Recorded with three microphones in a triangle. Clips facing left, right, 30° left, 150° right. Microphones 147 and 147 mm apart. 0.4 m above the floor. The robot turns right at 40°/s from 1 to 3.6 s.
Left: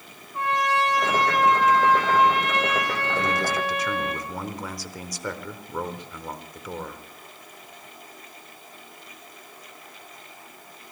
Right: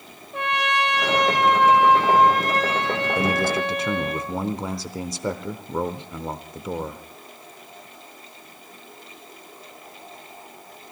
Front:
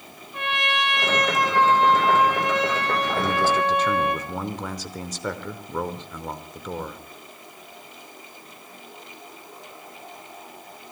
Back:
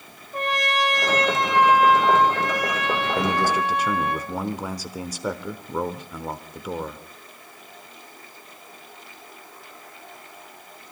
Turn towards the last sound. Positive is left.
turn(degrees=-85)